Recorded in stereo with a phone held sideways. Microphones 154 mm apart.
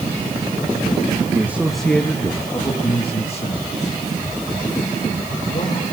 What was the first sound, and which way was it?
A man speaking, 15° right (ahead or behind).